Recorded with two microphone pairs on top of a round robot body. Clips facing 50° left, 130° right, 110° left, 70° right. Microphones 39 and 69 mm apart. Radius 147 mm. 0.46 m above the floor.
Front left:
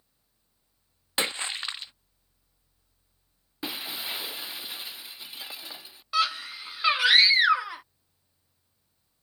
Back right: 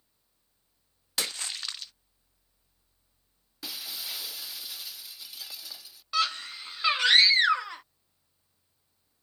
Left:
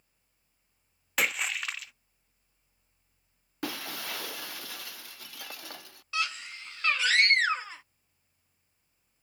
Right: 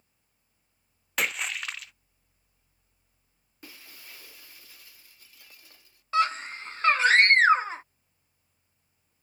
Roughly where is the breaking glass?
Left.